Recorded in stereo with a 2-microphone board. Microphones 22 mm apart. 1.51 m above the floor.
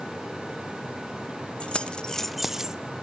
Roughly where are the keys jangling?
Left.